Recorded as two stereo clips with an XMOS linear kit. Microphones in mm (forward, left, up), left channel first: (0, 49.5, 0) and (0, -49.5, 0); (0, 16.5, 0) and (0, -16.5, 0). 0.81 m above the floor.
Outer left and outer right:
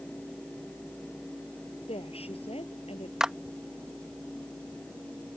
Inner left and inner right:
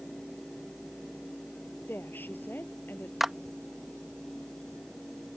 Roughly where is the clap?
Centre.